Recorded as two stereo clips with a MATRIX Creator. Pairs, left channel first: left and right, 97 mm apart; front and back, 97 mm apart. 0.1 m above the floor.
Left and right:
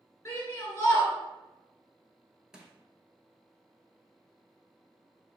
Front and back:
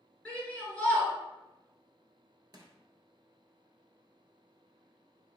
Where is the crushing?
170° right, 0.7 m.